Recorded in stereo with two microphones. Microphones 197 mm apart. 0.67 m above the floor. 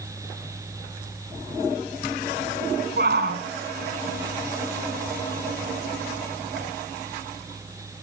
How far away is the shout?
About 8 m.